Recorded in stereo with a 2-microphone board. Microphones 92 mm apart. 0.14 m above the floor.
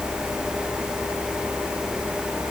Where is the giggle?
No giggle in this recording.